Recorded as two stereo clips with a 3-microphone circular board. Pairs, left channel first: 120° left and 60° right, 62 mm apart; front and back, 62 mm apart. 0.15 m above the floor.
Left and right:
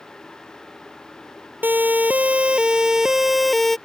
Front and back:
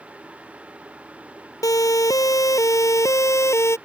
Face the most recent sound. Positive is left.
turn(degrees=35)